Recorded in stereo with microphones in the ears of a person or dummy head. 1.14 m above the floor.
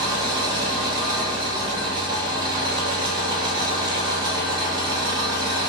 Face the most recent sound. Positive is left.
turn(degrees=-25)  # may be behind; listen again after turning